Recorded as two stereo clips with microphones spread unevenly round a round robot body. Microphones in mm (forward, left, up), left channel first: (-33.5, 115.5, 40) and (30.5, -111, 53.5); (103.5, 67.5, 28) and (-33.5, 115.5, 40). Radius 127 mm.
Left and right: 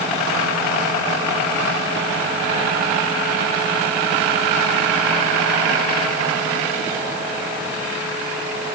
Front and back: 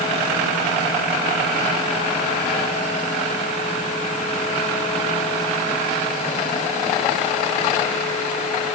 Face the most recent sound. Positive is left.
No sound to turn to.